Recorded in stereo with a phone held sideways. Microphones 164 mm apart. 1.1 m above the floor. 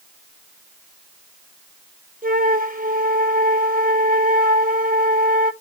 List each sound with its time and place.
2.2 s a flute: 55° right (ahead or behind), 0.9 m